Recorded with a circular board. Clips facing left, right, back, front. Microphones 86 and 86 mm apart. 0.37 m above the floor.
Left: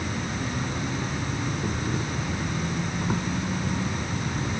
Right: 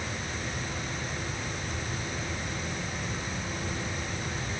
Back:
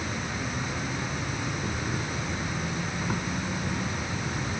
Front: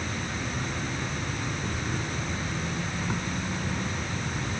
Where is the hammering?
No hammering in this recording.